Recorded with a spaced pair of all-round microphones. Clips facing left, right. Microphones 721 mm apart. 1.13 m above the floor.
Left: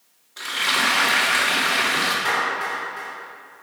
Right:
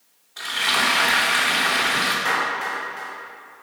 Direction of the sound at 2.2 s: 75° left (ahead or behind).